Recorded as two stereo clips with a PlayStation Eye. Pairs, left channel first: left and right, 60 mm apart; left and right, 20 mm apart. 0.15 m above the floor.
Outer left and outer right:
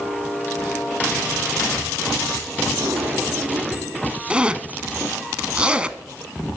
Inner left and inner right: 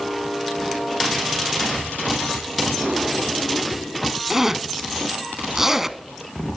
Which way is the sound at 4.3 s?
20° right (ahead or behind).